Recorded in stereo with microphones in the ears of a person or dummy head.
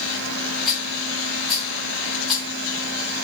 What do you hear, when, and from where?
0.7 s a rattle: 10° left (ahead or behind), 3.5 m